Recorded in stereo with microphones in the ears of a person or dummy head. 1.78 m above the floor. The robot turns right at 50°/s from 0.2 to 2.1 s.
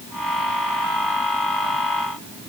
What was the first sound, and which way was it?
Only background noise.